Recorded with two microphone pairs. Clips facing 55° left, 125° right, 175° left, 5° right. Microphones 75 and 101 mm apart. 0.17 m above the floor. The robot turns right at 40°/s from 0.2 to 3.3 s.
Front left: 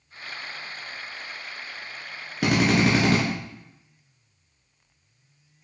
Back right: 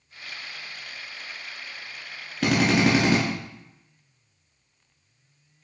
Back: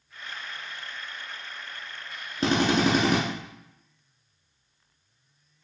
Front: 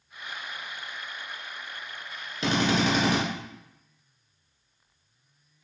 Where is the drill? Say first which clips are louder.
Even, back 2 dB; 135° left, 1.3 m; by 3.2 s 165° left, 1.3 m.